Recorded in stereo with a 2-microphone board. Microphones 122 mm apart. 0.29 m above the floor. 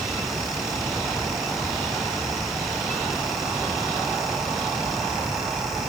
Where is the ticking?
I don't hear ticking.